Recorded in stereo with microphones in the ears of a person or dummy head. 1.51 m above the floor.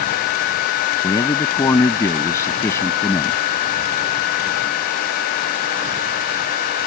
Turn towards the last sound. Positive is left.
turn(degrees=15)  # may be behind; listen again after turning